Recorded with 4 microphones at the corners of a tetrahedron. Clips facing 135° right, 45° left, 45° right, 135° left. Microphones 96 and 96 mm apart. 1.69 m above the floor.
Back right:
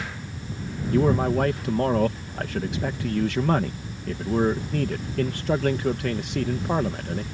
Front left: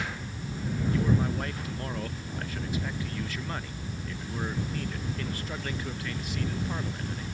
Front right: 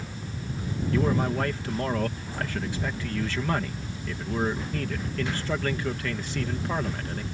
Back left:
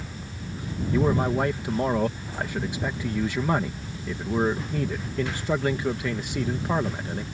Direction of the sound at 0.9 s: 150° right.